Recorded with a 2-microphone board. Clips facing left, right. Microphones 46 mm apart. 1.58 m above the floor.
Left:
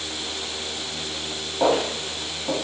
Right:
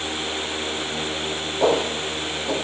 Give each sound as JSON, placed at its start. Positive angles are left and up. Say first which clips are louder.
{"t": 1.6, "sound": "footsteps", "louder": "right 1 dB", "side_deg": 10, "distance_m": 1.8}